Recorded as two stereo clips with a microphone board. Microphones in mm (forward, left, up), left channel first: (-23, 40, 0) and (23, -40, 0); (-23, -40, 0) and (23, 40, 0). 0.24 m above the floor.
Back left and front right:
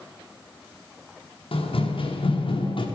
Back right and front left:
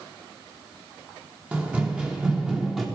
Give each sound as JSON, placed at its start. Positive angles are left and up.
{"t": 1.5, "sound": "running footsteps", "azimuth_deg": 135, "distance_m": 4.5}